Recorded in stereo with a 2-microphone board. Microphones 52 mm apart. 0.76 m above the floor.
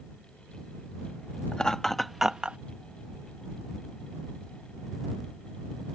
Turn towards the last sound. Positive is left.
turn(degrees=-25)  # may be behind; listen again after turning